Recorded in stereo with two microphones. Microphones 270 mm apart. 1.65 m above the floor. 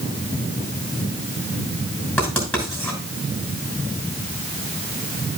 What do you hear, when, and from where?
2.2 s writing: 5° left (ahead or behind), 5.5 m